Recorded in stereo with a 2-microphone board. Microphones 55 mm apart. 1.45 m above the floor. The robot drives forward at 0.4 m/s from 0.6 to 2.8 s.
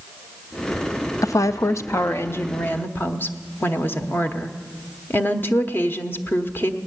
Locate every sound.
1.2 s a woman speaking: 85° left, 0.5 m; by 6.8 s 40° left (ahead or behind), 0.8 m